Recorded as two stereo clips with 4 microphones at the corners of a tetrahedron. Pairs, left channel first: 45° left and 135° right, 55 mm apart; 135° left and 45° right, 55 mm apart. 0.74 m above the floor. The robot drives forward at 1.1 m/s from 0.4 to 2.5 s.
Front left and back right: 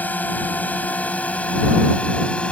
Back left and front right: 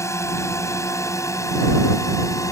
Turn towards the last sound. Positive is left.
turn(degrees=115)